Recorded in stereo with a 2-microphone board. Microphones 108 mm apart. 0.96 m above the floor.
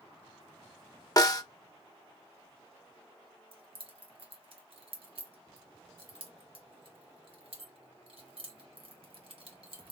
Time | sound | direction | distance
1.2 | a snare drum | 35° left (ahead or behind) | 0.6 m
3.5 | keys jangling | 60° right (ahead or behind) | 1.3 m